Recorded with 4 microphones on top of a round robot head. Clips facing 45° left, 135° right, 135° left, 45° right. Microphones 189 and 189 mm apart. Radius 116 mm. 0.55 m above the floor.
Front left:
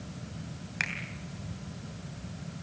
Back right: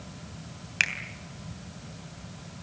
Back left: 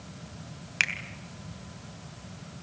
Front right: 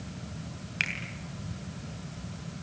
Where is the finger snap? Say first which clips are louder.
Back right 1 dB, front right 1 dB; 165° left, 3 m.